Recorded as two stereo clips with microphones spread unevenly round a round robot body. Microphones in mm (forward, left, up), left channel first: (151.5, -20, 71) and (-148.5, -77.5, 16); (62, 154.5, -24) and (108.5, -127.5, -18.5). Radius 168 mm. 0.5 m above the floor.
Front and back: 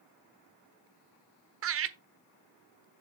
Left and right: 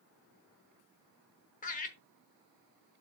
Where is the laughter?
165° left, 1.2 m.